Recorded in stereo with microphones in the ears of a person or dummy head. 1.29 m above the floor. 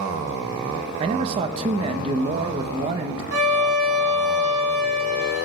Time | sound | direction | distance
1.0 | a man speaking | 30° right (ahead or behind) | 1.2 m
3.3 | a violin | 75° right (ahead or behind) | 2.5 m